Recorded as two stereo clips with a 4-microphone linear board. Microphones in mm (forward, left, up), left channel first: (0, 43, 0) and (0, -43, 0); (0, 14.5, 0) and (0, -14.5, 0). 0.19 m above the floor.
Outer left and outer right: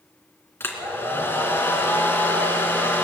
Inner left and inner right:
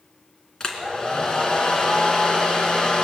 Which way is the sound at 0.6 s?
25° left (ahead or behind).